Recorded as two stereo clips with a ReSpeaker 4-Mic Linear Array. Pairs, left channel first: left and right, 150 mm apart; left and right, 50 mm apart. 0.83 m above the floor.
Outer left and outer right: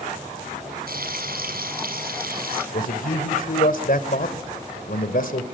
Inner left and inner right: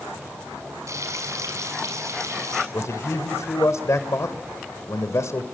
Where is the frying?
85° right, 6.5 m.